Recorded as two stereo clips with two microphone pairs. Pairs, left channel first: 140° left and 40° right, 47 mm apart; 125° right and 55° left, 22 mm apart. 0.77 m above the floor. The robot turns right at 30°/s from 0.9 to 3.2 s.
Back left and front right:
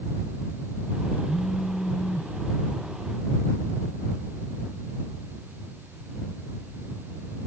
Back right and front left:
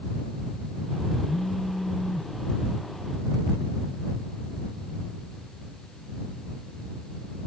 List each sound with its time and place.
1.3 s a phone buzzing: 160° left; by 2.3 s 170° right